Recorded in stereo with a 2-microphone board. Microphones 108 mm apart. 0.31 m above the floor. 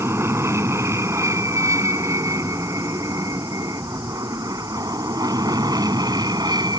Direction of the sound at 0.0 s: 25° right (ahead or behind).